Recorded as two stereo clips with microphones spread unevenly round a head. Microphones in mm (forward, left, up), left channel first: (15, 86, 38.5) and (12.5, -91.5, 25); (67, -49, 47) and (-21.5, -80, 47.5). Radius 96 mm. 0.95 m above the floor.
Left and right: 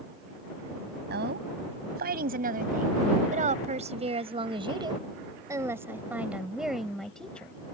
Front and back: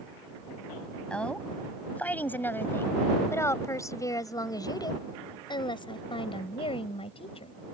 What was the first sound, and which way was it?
A woman speaking, 60° right.